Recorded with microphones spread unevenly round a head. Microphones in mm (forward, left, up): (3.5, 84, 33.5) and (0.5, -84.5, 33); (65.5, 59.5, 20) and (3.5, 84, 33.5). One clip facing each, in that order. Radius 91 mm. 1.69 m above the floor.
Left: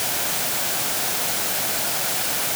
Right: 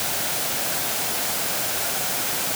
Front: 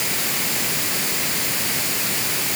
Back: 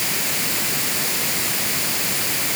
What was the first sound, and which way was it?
Only background noise.